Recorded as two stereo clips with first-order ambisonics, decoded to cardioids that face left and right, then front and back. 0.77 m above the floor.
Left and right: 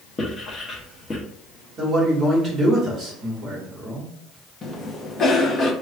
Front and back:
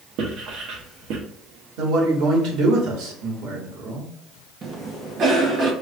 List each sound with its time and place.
0.2 s writing: 160° left, 0.8 m
1.8 s a man speaking: 155° right, 1.6 m
4.6 s a cough: 145° left, 0.7 m